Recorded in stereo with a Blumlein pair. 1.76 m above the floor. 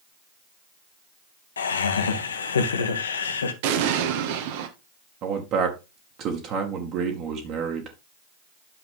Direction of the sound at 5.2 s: 35° right.